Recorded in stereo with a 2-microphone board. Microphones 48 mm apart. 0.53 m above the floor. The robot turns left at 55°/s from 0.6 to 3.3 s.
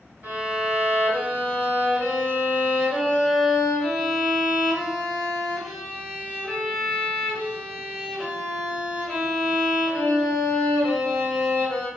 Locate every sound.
0.2 s a violin: 35° right, 1.7 m; by 11.9 s straight behind, 1.7 m